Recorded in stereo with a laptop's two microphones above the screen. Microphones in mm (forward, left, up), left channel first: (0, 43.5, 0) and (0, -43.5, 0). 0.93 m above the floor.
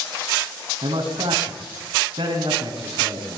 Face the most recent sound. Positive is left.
turn(degrees=-75)  # may be behind; listen again after turning